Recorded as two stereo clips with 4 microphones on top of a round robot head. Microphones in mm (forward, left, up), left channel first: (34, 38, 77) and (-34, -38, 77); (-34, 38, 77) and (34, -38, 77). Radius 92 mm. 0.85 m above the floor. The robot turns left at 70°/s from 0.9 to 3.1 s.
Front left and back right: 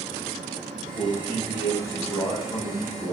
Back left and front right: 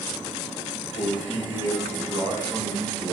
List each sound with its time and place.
0.9 s a man speaking: 140° left, 3 m; by 3.1 s 10° right, 3 m